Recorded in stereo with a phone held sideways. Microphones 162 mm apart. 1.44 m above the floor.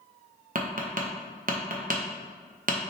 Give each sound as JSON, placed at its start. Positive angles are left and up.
{"t": 0.6, "sound": "tapping", "side_deg": -60, "distance_m": 0.9}